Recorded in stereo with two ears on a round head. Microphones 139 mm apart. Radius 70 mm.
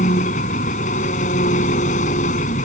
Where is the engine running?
50° left (ahead or behind).